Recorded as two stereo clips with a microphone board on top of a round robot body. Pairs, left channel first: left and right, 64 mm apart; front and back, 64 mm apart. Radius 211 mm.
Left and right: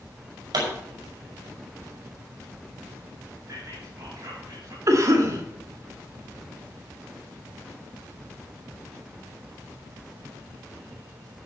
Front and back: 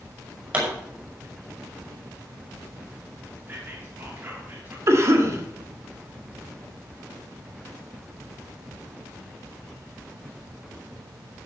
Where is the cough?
135° right, 2.5 m.